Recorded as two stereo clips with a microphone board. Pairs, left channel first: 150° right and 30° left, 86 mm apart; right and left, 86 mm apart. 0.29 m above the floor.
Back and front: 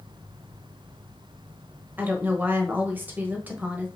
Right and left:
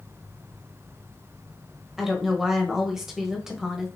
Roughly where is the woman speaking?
Ahead.